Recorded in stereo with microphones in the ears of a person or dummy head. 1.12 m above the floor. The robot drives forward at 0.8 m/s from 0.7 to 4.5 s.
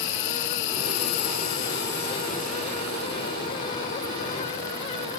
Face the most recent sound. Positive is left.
turn(degrees=20)  # may be behind; listen again after turning